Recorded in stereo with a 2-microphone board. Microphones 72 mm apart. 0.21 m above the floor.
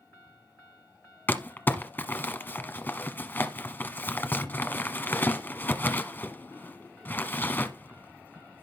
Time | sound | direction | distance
1.3 | crumpling | 30° left (ahead or behind) | 1.0 m